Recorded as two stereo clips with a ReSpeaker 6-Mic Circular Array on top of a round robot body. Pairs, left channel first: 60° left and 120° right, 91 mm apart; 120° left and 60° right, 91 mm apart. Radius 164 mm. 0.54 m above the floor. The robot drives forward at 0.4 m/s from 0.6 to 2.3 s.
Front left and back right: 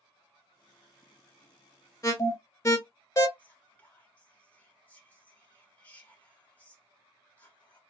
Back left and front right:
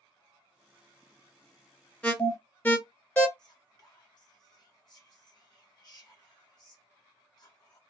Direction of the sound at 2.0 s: 65° left.